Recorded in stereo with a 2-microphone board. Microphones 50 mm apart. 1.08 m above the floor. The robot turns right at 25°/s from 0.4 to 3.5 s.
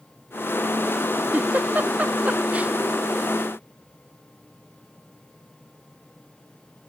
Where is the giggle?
30° right (ahead or behind); by 2.7 s 25° right (ahead or behind).